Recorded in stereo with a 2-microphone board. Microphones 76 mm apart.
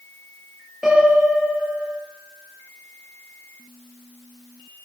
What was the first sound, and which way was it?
A piano, 5° right (ahead or behind).